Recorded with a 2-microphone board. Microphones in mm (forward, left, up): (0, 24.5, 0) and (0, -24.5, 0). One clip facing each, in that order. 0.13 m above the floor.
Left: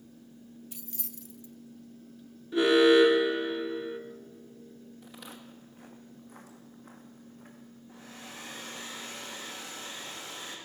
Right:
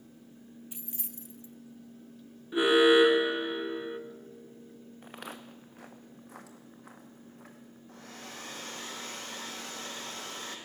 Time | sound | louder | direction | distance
0.7 | keys jangling | even | 20° right (ahead or behind) | 0.8 m
2.5 | an alarm | left 1 dB | 15° right (ahead or behind) | 1.2 m
5.0 | footsteps | right 5 dB | 40° right (ahead or behind) | 0.7 m
7.9 | a hair dryer | right 1 dB | 55° right (ahead or behind) | 2.5 m